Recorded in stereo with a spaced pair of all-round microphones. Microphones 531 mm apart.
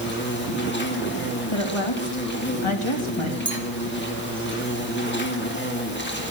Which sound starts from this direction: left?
A woman speaking, at 1.5 s.